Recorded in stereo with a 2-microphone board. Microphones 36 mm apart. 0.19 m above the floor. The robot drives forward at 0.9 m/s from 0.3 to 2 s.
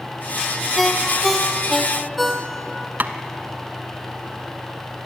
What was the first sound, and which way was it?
A ringtone, centre (ahead or behind).